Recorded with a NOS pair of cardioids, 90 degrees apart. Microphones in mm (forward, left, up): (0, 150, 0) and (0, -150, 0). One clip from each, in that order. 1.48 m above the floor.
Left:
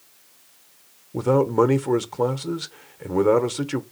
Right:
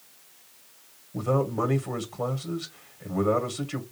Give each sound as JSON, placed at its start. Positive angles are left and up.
{"t": 1.1, "sound": "a man speaking", "azimuth_deg": 40, "distance_m": 0.9}